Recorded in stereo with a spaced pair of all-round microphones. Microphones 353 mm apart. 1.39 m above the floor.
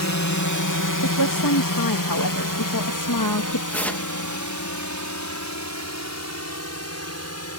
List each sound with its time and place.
0.0 s a drone: 50° left (ahead or behind); by 7.6 s 45° left (ahead or behind)
1.0 s a woman speaking: 70° left (ahead or behind)
3.7 s tearing paper: 5° left (ahead or behind)